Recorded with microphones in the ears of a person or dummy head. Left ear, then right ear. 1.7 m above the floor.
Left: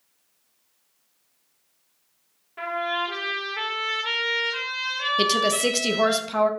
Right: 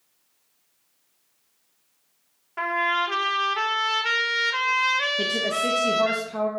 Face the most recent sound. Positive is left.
turn(degrees=55)  # may be behind; listen again after turning